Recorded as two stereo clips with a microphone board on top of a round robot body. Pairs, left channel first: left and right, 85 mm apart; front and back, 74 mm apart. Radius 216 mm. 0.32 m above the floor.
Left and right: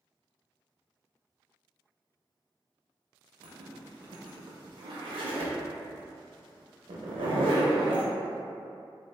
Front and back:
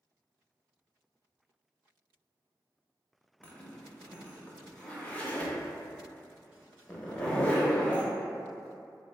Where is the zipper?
75° right, 0.5 m.